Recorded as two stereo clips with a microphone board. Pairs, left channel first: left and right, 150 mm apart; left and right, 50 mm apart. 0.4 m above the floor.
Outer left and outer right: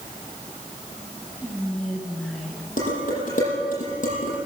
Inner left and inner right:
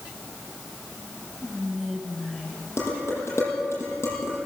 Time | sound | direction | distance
1.4 | whispering | 5° left (ahead or behind) | 5 m
2.8 | dishes clattering | 60° left (ahead or behind) | 7.5 m